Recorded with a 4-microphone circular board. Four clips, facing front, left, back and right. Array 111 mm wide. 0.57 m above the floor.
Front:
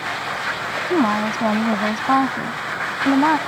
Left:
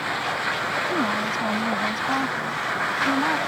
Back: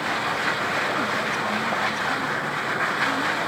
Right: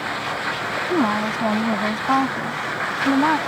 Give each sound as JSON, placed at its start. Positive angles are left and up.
{"t": 0.9, "sound": "a woman speaking", "azimuth_deg": -25}